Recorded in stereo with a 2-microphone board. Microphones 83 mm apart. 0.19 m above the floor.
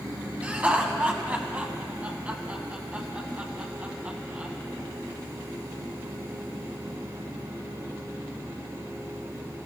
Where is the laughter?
20° right (ahead or behind), 1.5 m.